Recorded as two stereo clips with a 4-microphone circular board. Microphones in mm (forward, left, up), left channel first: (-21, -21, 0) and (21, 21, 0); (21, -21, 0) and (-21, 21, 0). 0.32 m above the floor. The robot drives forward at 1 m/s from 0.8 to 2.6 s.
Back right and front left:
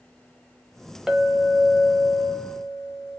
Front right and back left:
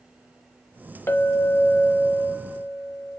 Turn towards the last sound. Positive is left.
turn(degrees=-155)